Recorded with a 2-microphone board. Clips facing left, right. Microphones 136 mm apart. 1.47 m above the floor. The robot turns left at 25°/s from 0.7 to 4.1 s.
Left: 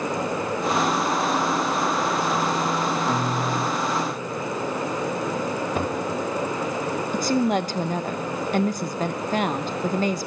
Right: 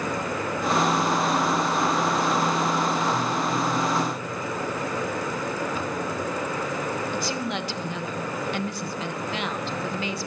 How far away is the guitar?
About 2.5 m.